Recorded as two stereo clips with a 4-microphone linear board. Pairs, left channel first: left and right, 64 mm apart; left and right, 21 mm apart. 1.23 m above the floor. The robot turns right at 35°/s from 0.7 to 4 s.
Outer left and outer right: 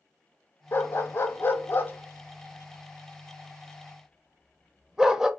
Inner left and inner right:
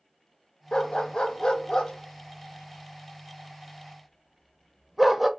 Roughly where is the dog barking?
Left.